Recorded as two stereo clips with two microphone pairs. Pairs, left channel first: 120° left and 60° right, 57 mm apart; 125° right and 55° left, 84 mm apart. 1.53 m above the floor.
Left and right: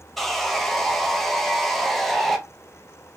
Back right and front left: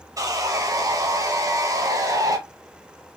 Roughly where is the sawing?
Ahead left.